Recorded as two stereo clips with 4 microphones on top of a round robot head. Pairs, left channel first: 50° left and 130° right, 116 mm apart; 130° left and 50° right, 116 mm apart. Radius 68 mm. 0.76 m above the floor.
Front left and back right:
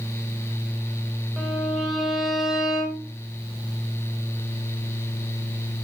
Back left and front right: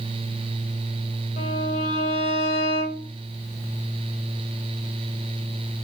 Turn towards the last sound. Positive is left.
turn(degrees=145)